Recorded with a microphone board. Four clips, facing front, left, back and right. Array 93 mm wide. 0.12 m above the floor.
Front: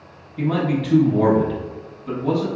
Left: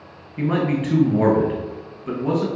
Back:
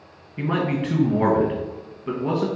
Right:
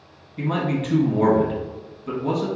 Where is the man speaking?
140° left, 1.2 m.